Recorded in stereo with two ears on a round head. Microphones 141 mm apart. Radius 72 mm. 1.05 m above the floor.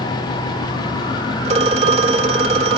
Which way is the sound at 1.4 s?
40° right (ahead or behind).